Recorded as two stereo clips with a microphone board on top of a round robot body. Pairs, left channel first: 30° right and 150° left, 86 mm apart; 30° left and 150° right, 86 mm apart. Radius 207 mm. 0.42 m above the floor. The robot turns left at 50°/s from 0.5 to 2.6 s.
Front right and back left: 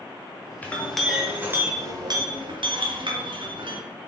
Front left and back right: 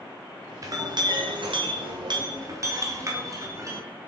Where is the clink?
100° right, 1.6 m; by 3.8 s 160° left, 1.6 m.